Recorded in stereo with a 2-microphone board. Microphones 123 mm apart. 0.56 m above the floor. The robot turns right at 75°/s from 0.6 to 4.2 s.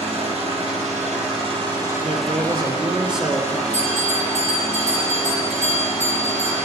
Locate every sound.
0.0 s an engine running: 120° right, 4.5 m; by 6.7 s 150° left, 4.5 m
2.0 s a man speaking: 90° right, 1.4 m; by 3.6 s 30° left, 1.4 m
3.7 s a bell: 70° left, 5 m; by 6.7 s 105° left, 5 m